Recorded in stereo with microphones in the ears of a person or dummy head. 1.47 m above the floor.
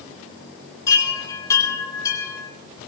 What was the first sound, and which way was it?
A chime, 20° left (ahead or behind).